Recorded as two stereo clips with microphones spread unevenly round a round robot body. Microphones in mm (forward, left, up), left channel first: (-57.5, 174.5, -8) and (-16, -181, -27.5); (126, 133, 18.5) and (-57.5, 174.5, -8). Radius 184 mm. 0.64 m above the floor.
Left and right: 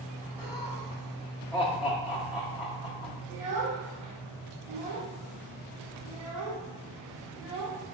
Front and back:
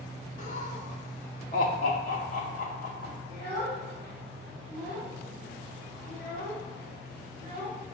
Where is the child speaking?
75° right, 1.2 m.